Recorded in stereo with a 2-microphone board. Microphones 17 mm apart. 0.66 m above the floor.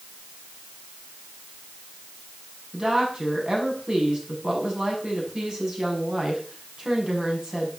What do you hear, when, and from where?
2.7 s a woman speaking: 50° right (ahead or behind), 6 m